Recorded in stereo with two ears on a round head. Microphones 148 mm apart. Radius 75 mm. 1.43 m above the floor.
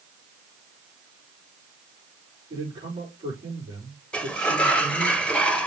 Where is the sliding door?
5° left (ahead or behind), 0.7 m.